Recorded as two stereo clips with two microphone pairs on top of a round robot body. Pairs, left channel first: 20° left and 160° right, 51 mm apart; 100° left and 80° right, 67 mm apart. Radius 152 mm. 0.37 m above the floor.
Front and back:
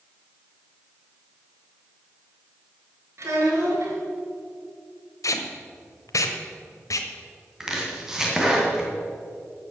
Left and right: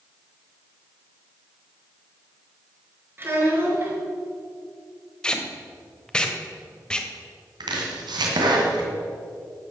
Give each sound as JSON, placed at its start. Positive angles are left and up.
{"t": 3.2, "sound": "a child speaking", "azimuth_deg": -140, "distance_m": 4.0}
{"t": 5.2, "sound": "tape being pulled", "azimuth_deg": 25, "distance_m": 1.1}
{"t": 7.6, "sound": "chopping", "azimuth_deg": -80, "distance_m": 2.0}